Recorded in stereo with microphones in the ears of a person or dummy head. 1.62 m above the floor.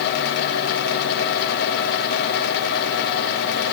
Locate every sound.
Only background noise.